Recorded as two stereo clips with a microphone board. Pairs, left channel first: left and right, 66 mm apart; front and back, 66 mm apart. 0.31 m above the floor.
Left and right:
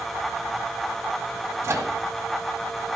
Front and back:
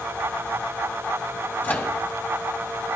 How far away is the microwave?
About 1.8 m.